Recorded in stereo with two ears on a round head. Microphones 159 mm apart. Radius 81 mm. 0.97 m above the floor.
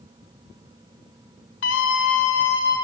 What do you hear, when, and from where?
1.6 s a scream: 85° left, 3 m; by 2.8 s 75° left (ahead or behind), 3.5 m